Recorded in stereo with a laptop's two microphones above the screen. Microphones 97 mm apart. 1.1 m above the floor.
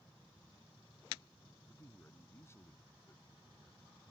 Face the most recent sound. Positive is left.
turn(degrees=25)  # may be behind; listen again after turning